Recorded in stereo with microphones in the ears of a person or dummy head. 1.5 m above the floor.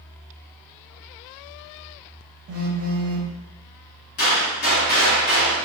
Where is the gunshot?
40° left (ahead or behind), 1.2 m.